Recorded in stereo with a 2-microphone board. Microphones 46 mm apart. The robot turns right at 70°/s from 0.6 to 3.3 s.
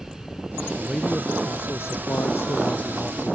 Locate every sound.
0.8 s a man speaking: straight ahead; by 3.4 s 175° left